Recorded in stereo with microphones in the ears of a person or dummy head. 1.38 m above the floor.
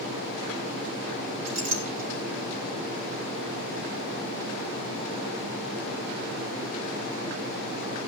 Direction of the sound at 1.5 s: 80° right.